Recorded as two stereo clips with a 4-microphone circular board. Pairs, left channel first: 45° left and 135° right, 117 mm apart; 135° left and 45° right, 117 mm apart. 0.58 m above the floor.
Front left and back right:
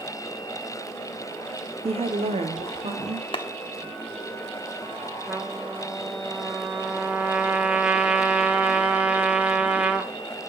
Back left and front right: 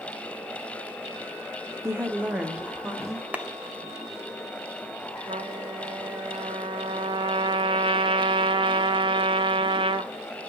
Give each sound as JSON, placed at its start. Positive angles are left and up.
{"t": 1.8, "sound": "a woman speaking", "azimuth_deg": -110, "distance_m": 1.1}
{"t": 3.3, "sound": "a clap", "azimuth_deg": 30, "distance_m": 0.9}
{"t": 5.3, "sound": "a trumpet", "azimuth_deg": -60, "distance_m": 1.1}